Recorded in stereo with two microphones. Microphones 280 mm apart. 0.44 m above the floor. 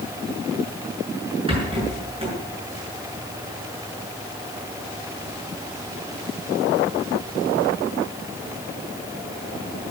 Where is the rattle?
20° right (ahead or behind), 7 m.